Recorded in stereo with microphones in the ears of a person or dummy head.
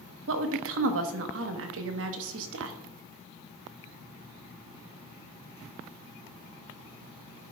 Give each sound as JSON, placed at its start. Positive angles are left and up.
{"t": 0.3, "sound": "a woman speaking", "side_deg": -75, "distance_m": 1.0}